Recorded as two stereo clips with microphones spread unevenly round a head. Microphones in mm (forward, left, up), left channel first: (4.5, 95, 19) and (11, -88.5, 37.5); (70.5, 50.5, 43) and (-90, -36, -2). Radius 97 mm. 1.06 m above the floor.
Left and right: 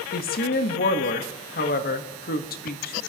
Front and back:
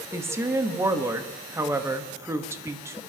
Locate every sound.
0.1 s a woman speaking: 135° left, 1.2 m